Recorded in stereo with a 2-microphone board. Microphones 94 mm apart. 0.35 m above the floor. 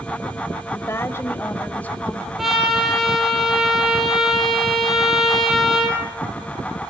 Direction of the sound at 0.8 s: 30° left (ahead or behind).